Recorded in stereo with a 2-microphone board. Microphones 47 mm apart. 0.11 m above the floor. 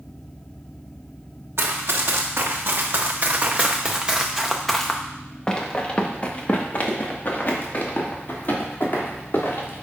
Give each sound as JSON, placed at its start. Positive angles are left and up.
{"t": 1.6, "sound": "running footsteps", "side_deg": -70, "distance_m": 1.7}